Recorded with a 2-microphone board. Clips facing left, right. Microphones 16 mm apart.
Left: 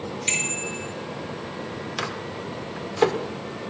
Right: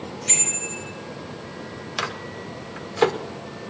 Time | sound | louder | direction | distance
0.3 | a bicycle bell | left 1 dB | 50° left (ahead or behind) | 6.5 m
2.0 | a microwave | right 3 dB | 15° right (ahead or behind) | 0.8 m